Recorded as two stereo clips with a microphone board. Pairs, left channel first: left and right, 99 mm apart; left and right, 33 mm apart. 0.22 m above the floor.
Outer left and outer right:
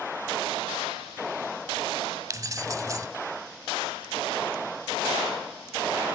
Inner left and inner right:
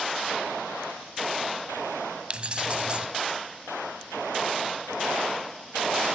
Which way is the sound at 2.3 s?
35° right (ahead or behind).